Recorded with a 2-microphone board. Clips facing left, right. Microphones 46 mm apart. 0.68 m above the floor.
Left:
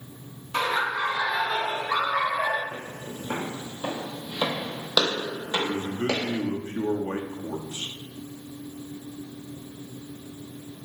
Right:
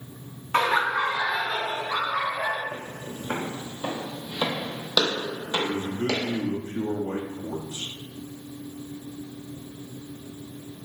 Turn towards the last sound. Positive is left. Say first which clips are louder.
# even
turn(degrees=50)  # may be behind; listen again after turning